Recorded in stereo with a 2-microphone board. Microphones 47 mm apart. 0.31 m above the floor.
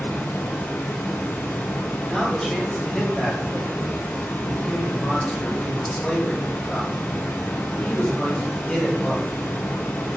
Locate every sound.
0.0 s running water: 65° left (ahead or behind), 0.8 m
2.1 s a man speaking: 20° left (ahead or behind), 1.4 m